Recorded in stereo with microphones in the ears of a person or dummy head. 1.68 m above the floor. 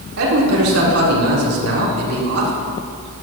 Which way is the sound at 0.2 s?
85° right.